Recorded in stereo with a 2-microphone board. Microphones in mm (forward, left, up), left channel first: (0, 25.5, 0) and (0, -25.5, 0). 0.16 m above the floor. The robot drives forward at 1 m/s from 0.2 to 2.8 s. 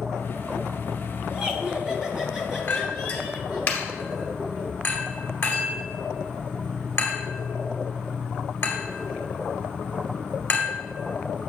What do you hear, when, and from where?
0.0 s an insect: 80° right, 1.7 m; by 11.5 s 30° right (ahead or behind), 3 m
1.3 s laughter: 25° right (ahead or behind), 1.1 m; by 3.7 s 10° right (ahead or behind), 2 m
2.7 s a clink: 35° left (ahead or behind), 1.7 m